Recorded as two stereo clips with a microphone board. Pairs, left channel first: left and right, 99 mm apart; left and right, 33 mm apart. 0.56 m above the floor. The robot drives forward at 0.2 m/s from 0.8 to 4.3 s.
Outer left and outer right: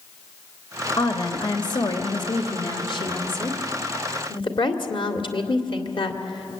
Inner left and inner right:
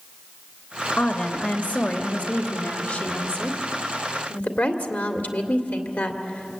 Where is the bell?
I don't hear a bell.